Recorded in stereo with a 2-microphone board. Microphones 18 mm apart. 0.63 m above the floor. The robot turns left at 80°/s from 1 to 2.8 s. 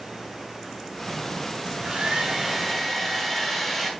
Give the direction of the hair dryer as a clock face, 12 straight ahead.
2 o'clock.